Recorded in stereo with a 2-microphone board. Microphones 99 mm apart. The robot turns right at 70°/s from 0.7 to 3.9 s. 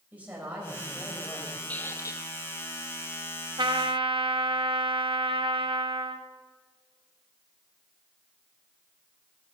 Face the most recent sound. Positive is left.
turn(degrees=-60)  # may be behind; listen again after turning